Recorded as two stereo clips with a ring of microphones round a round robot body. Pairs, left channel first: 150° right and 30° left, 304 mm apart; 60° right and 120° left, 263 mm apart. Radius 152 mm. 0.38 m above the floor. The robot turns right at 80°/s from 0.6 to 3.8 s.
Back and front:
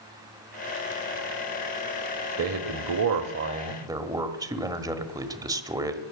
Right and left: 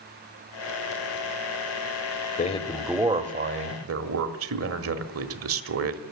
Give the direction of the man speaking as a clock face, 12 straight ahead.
12 o'clock.